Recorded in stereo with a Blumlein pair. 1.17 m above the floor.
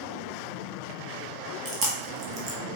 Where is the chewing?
30° right, 1.2 m.